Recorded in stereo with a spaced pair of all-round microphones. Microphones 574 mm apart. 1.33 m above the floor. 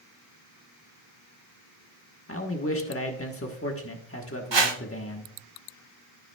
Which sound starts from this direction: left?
A man speaking, at 2.3 s.